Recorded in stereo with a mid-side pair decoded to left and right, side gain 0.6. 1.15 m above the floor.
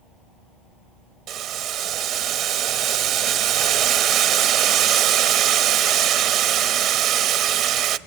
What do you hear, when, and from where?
1.3 s boiling: 65° right, 0.9 m